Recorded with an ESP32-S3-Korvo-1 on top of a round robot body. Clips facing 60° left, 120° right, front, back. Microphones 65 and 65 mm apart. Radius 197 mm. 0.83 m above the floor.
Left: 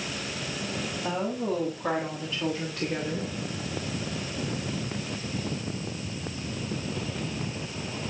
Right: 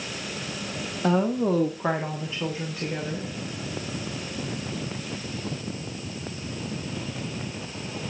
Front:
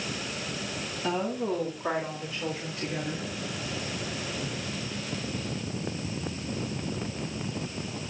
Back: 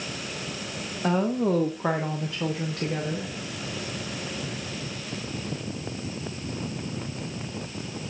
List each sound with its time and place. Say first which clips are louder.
1.0 s a woman speaking: right 8 dB, back 5 dB; 130° right, 1.7 m; by 3.3 s 145° left, 2 m